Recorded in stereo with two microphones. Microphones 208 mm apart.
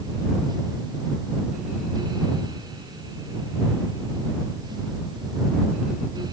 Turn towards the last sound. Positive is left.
No sound to turn to.